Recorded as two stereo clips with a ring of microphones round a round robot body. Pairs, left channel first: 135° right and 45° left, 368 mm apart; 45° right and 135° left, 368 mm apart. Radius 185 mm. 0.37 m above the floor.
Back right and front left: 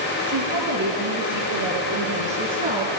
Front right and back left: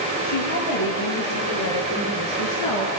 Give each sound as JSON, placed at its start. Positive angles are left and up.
{"t": 0.2, "sound": "a woman speaking", "azimuth_deg": 0, "distance_m": 7.0}